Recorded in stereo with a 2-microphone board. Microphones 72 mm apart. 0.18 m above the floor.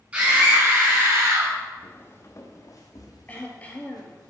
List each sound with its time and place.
0.1 s a scream: 20° right (ahead or behind), 1.6 m; by 1.6 s 50° right (ahead or behind), 1.8 m
1.8 s footsteps: 25° left (ahead or behind), 0.9 m; by 4.3 s 70° left (ahead or behind), 2 m
3.3 s throat clearing: 20° left (ahead or behind), 0.9 m